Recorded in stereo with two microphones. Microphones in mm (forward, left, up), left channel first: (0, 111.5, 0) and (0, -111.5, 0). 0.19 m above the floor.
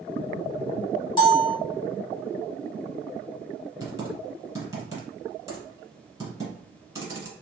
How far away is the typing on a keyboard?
About 1.2 m.